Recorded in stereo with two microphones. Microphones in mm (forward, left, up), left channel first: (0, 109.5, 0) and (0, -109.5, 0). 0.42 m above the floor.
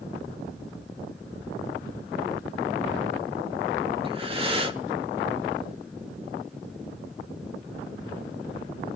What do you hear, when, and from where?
4.0 s breathing: 25° right (ahead or behind), 1.0 m